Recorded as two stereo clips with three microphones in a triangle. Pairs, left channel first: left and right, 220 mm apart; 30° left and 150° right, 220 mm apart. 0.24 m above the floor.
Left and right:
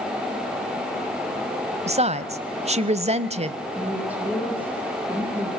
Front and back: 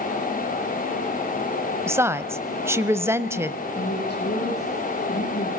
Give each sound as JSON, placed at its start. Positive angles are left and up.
{"t": 1.9, "sound": "a woman speaking", "azimuth_deg": -85, "distance_m": 1.0}
{"t": 3.8, "sound": "a woman speaking", "azimuth_deg": -5, "distance_m": 9.0}